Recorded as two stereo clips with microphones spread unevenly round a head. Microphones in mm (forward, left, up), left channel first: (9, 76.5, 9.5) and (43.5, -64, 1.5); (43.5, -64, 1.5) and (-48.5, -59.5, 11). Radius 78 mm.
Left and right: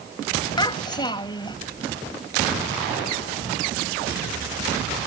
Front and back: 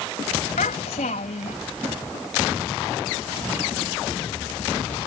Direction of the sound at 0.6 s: 45° left.